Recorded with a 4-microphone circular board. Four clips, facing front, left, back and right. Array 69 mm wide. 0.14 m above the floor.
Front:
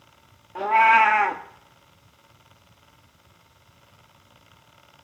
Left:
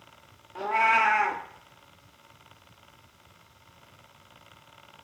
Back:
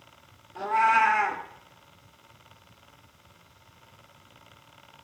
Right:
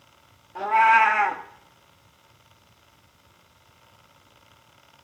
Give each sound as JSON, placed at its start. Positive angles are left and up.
{"t": 0.6, "sound": "a cat meowing", "azimuth_deg": -5, "distance_m": 1.3}